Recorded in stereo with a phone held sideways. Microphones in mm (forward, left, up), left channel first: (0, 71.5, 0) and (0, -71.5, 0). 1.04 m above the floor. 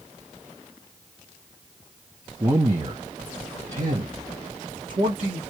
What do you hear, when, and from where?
2.4 s a man speaking: 20° right (ahead or behind), 1.0 m; by 5.4 s 75° right (ahead or behind), 2.5 m